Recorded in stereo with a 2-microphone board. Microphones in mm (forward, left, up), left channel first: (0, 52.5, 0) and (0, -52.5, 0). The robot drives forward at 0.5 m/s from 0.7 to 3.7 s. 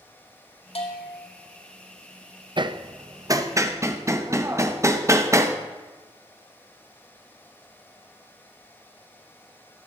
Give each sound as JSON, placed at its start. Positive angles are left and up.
{"t": 0.8, "sound": "a bell", "side_deg": 75, "distance_m": 2.5}
{"t": 2.6, "sound": "hammering", "side_deg": -45, "distance_m": 0.6}